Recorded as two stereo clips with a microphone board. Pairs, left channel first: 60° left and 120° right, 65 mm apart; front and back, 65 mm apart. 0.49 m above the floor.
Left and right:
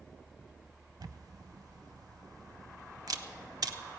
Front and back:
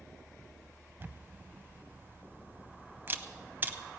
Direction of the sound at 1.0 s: 120° right.